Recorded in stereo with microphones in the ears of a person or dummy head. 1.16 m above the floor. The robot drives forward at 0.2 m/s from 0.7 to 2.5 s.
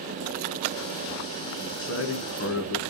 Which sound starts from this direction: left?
A man speaking, at 1.6 s.